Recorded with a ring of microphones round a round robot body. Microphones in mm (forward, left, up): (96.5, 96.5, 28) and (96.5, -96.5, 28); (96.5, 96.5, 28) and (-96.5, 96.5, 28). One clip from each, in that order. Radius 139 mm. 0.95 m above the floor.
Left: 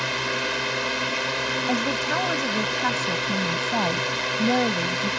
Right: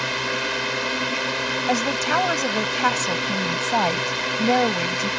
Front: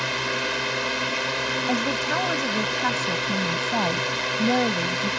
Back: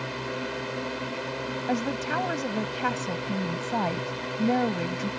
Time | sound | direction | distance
0.0 | a drone | 30° right | ?
1.7 | a woman speaking | 90° right | ?